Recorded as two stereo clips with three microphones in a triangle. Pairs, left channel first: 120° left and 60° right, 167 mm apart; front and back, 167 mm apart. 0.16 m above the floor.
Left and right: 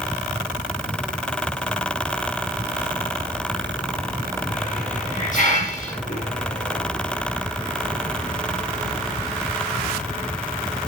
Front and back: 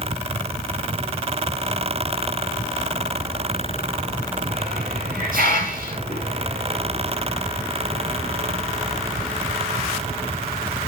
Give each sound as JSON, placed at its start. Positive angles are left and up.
{"t": 4.5, "sound": "a hiss", "azimuth_deg": 155, "distance_m": 3.0}